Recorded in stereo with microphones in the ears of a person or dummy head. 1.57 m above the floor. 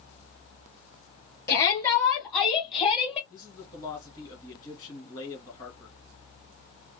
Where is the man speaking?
20° left (ahead or behind), 2.5 m.